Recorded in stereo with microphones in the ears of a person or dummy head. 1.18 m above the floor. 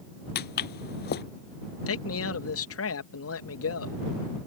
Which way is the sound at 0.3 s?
50° left (ahead or behind).